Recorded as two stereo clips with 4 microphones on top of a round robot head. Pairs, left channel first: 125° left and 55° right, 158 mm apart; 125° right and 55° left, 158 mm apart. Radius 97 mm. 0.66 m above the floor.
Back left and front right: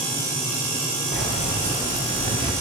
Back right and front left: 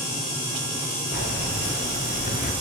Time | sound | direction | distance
1.1 | keys jangling | 90° right | 2.5 m